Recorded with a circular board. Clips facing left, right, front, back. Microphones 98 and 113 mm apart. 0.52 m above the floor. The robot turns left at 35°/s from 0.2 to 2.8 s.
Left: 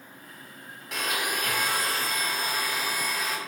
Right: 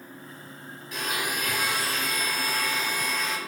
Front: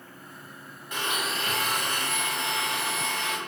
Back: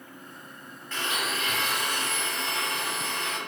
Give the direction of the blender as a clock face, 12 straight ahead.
10 o'clock.